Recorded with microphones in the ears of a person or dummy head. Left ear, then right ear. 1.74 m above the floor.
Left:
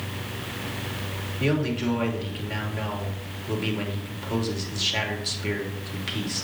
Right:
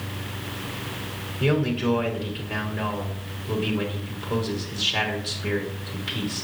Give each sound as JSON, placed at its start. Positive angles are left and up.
{"t": 1.4, "sound": "a man speaking", "side_deg": 30, "distance_m": 2.5}